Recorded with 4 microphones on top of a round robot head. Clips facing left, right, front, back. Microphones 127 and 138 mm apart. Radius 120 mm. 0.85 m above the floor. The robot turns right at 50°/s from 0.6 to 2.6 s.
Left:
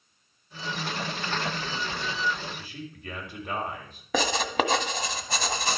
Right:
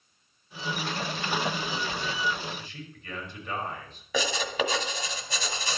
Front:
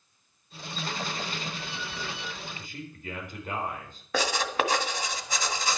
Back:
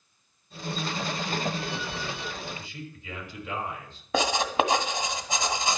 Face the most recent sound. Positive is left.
turn(degrees=110)